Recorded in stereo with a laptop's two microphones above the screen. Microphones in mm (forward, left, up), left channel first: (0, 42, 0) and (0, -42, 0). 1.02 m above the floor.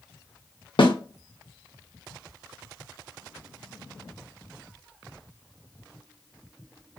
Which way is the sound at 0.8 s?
75° left (ahead or behind).